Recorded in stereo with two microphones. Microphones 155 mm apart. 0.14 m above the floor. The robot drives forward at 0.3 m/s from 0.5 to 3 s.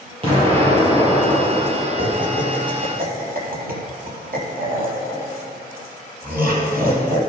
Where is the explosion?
35° right (ahead or behind), 3.5 m; by 2.6 s 30° right (ahead or behind), 4 m.